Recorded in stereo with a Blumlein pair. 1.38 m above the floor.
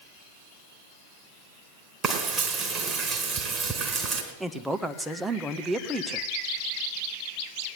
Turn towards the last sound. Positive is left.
turn(degrees=-5)